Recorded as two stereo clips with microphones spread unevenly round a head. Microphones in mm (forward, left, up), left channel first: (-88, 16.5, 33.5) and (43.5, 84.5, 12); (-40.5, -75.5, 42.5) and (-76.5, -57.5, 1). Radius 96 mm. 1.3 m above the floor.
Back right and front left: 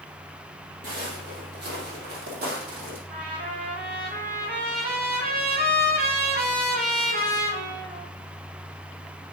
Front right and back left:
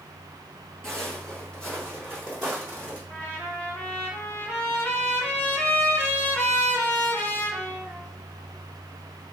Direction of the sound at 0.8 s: 15° right.